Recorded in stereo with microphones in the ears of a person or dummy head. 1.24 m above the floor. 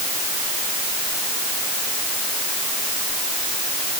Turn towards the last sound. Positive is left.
No sound to turn to.